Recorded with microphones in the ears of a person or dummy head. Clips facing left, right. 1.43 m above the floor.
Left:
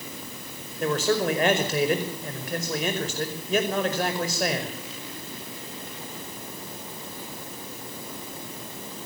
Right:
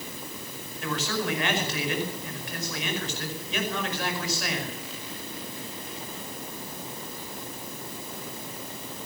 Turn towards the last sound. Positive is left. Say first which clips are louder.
# left 7 dB
turn(degrees=35)  # may be behind; listen again after turning